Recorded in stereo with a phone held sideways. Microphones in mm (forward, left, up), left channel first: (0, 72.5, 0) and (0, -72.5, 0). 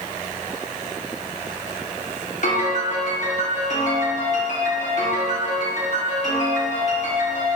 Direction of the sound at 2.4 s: 55° left (ahead or behind).